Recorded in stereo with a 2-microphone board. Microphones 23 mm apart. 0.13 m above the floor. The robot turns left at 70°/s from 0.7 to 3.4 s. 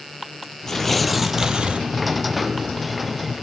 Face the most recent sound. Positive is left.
turn(degrees=-160)